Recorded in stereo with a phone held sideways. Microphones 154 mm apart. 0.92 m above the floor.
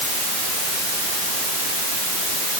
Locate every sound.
Only background noise.